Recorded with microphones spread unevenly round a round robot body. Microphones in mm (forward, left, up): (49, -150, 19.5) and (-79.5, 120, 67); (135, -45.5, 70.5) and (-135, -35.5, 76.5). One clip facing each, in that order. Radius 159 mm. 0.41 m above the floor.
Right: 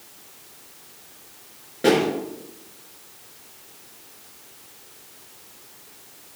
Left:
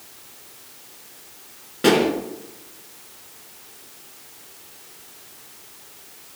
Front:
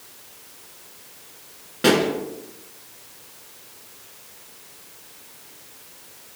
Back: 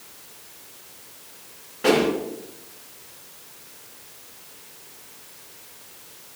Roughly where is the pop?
Ahead left.